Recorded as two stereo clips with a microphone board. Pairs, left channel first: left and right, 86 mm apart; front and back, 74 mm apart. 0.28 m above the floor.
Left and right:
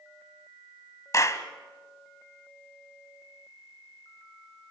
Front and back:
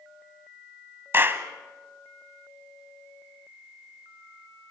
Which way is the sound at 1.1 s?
130° left.